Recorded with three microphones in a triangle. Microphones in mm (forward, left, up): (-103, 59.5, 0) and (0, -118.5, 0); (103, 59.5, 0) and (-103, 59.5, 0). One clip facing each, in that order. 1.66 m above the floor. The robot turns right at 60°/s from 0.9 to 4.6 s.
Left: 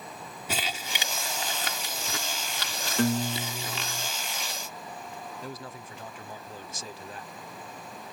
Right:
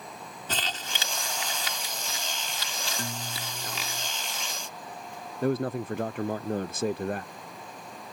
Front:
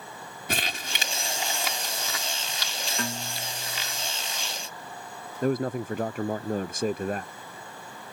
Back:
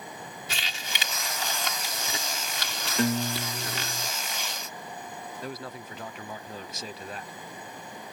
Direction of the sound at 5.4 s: 35° right.